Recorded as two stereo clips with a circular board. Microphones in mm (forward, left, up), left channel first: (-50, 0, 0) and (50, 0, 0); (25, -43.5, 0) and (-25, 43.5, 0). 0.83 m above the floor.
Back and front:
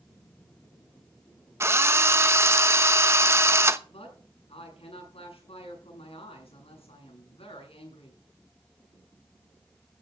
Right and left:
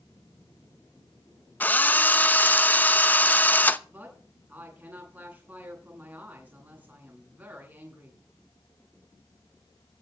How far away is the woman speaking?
About 8.5 m.